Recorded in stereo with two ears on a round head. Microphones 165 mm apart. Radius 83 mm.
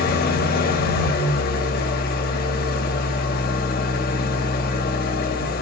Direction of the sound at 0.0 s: 55° left (ahead or behind).